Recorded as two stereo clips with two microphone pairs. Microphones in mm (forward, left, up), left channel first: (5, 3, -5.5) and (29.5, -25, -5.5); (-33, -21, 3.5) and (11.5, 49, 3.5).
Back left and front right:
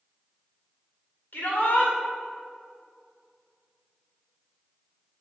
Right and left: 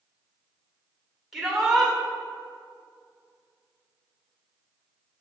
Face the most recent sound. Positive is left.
turn(degrees=145)